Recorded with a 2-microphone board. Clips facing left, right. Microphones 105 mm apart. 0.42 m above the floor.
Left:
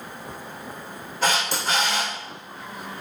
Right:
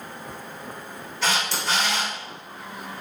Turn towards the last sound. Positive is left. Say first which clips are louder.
# left 2 dB
turn(degrees=45)  # may be behind; listen again after turning